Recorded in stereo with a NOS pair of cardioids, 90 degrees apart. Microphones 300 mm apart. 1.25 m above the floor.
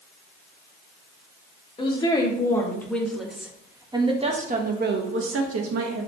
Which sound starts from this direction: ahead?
A woman speaking, at 1.8 s.